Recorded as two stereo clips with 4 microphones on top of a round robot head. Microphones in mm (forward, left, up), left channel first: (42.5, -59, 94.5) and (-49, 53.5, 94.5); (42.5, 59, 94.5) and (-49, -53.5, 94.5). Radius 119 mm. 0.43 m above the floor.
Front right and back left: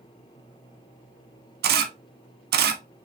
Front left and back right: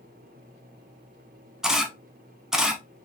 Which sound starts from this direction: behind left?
A camera shutter, at 1.6 s.